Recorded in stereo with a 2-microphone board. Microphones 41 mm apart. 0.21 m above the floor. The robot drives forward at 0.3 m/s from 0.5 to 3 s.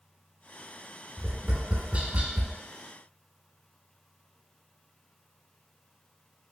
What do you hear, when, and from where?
1.2 s tapping: 25° right (ahead or behind), 0.7 m; by 2.5 s 35° right (ahead or behind), 0.6 m